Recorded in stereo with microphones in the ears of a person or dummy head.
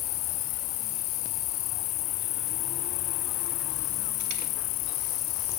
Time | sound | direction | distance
0.0 | an insect | 40° left (ahead or behind) | ?